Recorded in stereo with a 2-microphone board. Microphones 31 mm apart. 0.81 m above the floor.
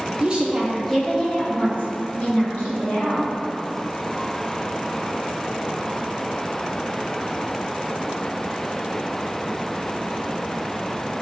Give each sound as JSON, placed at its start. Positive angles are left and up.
{"t": 0.2, "sound": "a woman speaking", "side_deg": -30, "distance_m": 0.7}